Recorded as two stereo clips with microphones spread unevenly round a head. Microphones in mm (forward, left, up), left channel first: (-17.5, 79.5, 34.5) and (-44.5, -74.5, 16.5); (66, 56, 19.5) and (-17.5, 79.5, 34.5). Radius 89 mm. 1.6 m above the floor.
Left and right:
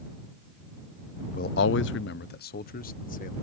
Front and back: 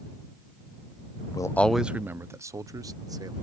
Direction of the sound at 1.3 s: 25° left.